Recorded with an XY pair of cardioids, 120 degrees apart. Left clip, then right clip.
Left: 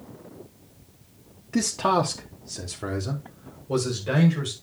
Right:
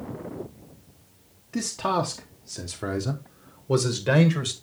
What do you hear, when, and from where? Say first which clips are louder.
1.5 s a man speaking: left 3 dB; 30° left, 1.1 m; by 4.5 s 50° right, 1.7 m